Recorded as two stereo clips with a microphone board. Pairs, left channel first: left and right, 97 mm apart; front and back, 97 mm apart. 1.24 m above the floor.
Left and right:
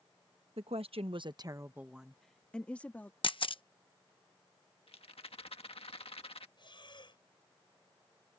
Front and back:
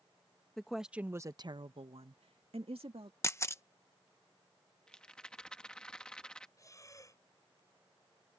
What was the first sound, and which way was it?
A woman speaking, 85° right.